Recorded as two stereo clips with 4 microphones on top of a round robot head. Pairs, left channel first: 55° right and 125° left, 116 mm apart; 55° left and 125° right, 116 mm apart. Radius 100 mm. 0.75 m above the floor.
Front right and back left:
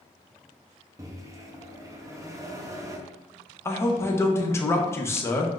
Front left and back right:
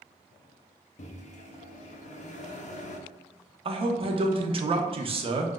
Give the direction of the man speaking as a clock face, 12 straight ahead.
4 o'clock.